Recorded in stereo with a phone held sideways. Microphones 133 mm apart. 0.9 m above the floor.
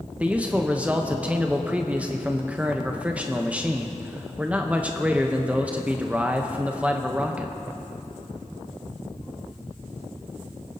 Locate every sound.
0.2 s a man speaking: 10° right (ahead or behind), 0.6 m